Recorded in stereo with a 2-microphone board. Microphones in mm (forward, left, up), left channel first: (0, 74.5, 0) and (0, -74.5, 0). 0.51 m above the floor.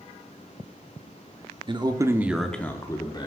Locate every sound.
1.7 s a man speaking: 35° right (ahead or behind), 0.8 m; by 3.3 s 30° left (ahead or behind), 0.9 m